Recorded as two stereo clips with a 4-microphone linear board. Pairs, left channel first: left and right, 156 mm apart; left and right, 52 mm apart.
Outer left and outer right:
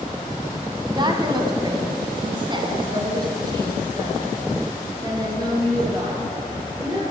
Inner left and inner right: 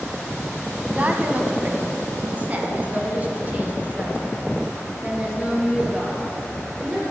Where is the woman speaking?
30° right (ahead or behind), 1.1 m; by 7.0 s 25° right (ahead or behind), 3.5 m.